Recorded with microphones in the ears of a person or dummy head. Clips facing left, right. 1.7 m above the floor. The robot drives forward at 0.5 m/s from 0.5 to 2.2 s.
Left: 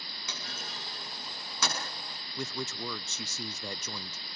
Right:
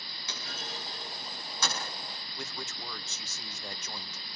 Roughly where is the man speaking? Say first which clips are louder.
Left 7 dB; left.